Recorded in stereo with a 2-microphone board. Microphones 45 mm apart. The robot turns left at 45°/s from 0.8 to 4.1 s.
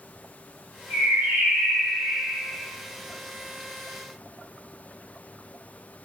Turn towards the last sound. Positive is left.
turn(degrees=175)